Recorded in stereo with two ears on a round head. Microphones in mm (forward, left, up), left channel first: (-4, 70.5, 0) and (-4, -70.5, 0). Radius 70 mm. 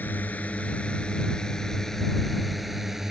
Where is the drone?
10° left (ahead or behind); by 3.1 s centre (ahead or behind).